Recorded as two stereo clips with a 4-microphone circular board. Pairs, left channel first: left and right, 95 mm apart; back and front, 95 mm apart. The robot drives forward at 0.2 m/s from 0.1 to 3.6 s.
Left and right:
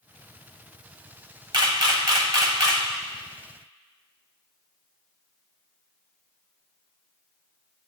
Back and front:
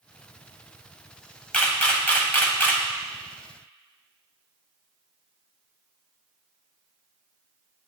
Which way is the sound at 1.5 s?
105° right.